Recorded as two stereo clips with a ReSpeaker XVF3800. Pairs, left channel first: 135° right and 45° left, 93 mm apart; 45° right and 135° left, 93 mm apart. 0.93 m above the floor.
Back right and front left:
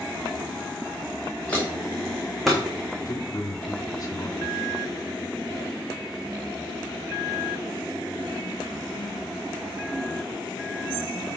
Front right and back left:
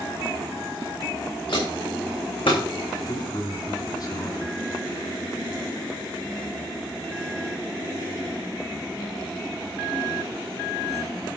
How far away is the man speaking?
About 2.5 m.